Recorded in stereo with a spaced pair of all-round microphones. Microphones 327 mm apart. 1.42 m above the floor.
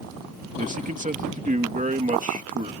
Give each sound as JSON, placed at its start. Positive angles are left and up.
{"t": 0.6, "sound": "a man speaking", "side_deg": -20}